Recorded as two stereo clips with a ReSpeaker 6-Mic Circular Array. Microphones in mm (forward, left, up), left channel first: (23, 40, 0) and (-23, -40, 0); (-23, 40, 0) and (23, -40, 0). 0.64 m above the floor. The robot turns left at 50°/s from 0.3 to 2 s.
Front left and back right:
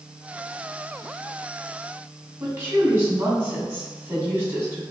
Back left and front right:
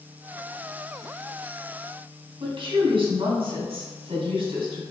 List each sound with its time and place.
2.4 s a woman speaking: 65° right, 1.9 m